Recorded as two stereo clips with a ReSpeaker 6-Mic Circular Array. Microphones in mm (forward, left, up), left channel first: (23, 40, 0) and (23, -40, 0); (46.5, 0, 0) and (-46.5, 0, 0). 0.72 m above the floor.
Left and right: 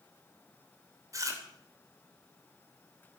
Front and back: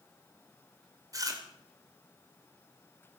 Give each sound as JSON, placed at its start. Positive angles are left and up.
{"t": 1.1, "sound": "chewing", "azimuth_deg": -135, "distance_m": 2.5}